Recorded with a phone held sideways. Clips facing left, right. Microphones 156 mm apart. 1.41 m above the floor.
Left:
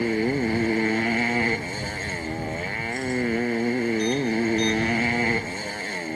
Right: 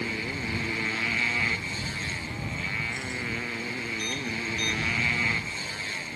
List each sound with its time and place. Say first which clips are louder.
0.0 s a motorcycle: left 11 dB; 50° left (ahead or behind)